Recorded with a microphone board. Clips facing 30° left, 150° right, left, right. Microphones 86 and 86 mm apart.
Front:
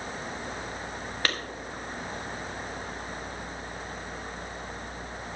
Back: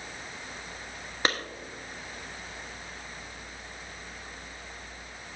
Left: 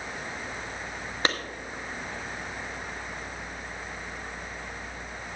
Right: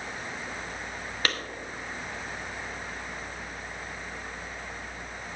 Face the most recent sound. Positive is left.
turn(degrees=145)